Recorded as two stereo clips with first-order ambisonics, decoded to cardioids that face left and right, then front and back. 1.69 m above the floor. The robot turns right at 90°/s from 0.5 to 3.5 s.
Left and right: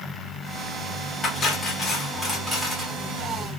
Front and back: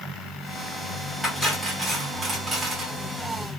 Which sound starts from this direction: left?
Cutlery clinking, at 1.2 s.